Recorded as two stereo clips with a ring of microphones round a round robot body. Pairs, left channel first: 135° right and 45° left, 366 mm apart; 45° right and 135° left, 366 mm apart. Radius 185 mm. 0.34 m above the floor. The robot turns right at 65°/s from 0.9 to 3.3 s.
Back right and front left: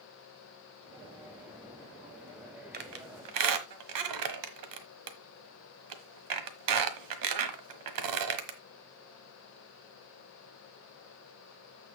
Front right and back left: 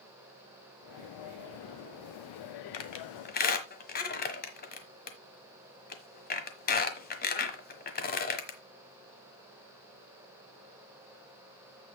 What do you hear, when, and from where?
2.7 s a squeak: 20° right, 1.4 m; by 8.6 s 20° left, 1.4 m